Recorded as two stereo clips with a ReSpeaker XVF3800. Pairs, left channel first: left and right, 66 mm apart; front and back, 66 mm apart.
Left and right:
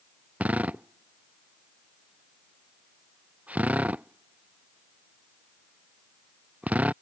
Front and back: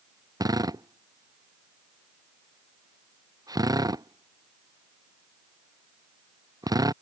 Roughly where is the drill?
Behind.